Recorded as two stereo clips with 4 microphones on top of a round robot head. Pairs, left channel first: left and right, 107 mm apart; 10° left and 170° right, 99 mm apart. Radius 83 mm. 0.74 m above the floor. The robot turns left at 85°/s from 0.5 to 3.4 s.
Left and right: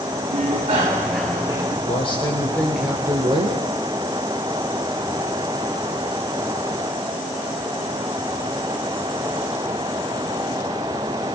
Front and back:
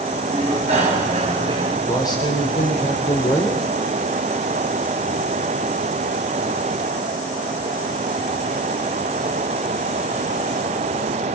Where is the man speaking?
75° left, 3.5 m; by 3.6 s 55° right, 3.5 m.